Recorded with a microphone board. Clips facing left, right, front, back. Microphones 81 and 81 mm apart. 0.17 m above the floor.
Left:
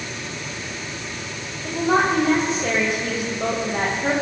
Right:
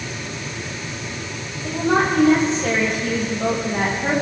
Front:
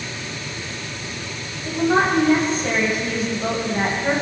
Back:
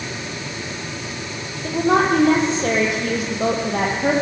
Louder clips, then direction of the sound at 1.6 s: Even, back 1 dB; 175° left.